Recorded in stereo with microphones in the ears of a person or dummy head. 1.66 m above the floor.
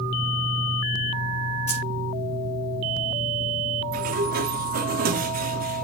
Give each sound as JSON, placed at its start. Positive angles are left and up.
{"t": 1.7, "sound": "keys jangling", "side_deg": 35, "distance_m": 3.5}
{"t": 3.9, "sound": "a sliding door", "side_deg": -45, "distance_m": 0.9}